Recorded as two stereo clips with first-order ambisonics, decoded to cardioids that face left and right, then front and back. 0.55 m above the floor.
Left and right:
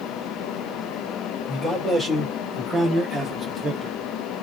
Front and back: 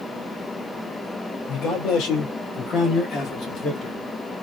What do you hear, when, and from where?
1.5 s a man speaking: 10° left, 2 m; by 4.0 s 40° right, 1.2 m